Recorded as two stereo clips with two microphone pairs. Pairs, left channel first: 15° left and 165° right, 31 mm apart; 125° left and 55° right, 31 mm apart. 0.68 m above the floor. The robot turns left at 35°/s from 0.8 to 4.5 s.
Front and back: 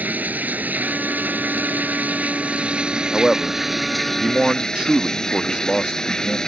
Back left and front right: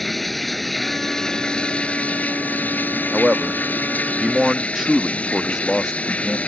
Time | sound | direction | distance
0.0 | running water | 150° right | ?
3.1 | a man speaking | 80° right | ?